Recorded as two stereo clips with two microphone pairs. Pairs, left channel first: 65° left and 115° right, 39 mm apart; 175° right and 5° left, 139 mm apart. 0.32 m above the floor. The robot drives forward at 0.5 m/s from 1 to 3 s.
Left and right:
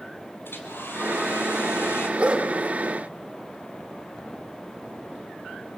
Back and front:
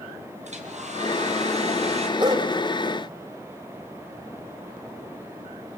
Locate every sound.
0.5 s a hair dryer: 40° left, 4 m; by 2.1 s 50° left, 3.5 m
2.2 s a dog barking: 50° right, 3.5 m